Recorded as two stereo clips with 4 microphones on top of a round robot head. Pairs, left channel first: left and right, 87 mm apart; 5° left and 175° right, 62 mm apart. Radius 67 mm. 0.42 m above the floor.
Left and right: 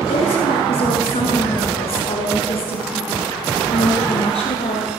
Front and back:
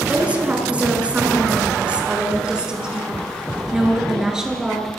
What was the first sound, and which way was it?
A woman speaking, 115° left.